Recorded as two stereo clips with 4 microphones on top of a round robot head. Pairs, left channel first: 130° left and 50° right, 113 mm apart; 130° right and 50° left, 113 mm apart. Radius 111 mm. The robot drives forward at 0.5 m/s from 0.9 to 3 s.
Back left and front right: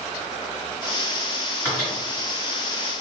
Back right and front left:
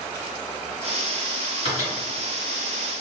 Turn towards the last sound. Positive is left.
turn(degrees=-165)